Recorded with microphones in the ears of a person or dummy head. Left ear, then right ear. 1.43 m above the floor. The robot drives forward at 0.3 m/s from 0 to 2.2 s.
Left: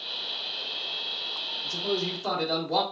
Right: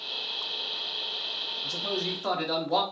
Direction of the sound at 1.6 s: 30° right (ahead or behind).